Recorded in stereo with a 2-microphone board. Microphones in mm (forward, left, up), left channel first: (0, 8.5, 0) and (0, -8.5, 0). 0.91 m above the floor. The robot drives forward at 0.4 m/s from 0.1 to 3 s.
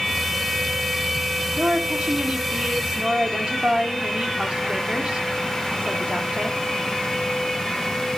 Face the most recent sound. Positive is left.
turn(degrees=-70)  # may be behind; listen again after turning